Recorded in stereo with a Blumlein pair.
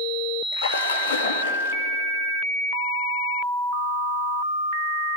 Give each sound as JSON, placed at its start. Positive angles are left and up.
{"t": 0.5, "sound": "a splash", "azimuth_deg": 65, "distance_m": 1.8}